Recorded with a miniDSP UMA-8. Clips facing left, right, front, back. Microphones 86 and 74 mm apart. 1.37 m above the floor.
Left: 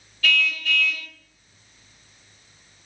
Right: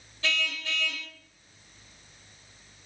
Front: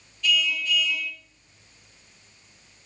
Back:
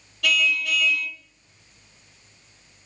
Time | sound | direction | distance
0.2 | a car horn | 155° right | 2.5 m